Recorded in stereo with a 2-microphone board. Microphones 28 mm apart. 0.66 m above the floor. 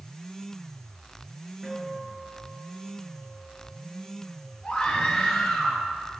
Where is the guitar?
5° right (ahead or behind), 7 m.